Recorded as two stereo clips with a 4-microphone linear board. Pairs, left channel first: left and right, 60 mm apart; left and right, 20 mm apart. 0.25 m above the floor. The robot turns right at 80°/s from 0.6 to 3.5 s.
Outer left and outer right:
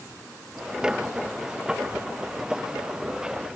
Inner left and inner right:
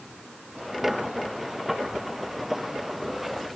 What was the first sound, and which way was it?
Only background noise.